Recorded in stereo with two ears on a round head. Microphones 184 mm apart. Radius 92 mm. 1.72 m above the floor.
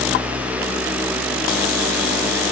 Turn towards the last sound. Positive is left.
No sound to turn to.